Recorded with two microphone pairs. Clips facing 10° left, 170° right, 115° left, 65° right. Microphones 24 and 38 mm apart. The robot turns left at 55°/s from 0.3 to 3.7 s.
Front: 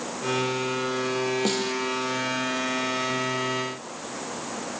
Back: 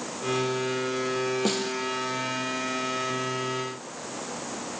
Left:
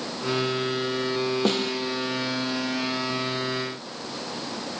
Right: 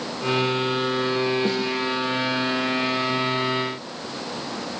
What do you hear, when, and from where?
1.4 s a snare drum: 100° left, 1.8 m; by 1.8 s 80° left, 1.8 m